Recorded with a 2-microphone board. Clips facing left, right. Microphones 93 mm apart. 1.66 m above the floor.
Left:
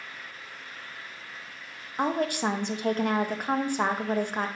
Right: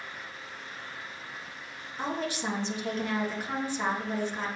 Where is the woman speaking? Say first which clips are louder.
Left 6 dB; 55° left (ahead or behind), 0.8 m.